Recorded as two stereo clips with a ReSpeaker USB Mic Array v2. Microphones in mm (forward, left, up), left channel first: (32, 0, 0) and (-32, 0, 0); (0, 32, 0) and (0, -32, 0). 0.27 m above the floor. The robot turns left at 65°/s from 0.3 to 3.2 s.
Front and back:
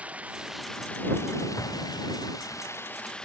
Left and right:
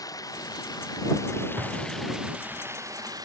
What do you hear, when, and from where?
0.0 s running water: 110° left; by 3.2 s 75° right
1.6 s an explosion: 40° right; by 2.6 s 105° right